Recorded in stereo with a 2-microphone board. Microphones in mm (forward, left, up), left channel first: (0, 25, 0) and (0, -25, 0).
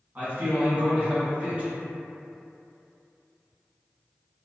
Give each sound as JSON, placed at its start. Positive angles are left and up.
{"t": 0.1, "sound": "a man speaking", "side_deg": -35, "distance_m": 1.3}